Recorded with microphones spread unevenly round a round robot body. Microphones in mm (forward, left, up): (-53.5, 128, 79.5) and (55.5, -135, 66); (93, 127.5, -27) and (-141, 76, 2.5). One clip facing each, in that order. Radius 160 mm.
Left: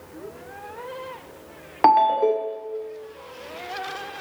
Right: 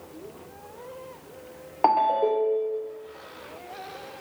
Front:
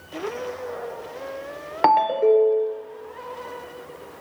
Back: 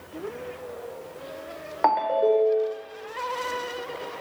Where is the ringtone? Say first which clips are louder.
Left 4 dB, front 4 dB; 55° left, 0.5 m.